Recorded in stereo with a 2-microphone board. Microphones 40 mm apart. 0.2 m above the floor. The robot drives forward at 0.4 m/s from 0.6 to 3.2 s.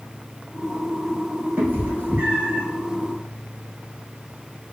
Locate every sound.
1.6 s a cat meowing: 55° right (ahead or behind), 2 m; by 2.6 s 45° right (ahead or behind), 2.5 m